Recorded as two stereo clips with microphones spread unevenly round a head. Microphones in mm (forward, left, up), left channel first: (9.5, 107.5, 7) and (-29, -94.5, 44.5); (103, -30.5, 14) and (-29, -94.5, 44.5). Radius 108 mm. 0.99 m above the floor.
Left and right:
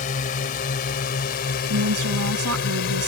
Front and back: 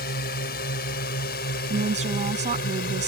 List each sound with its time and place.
0.0 s a drone: 25° left; by 3.1 s 40° left
1.7 s a woman speaking: 115° right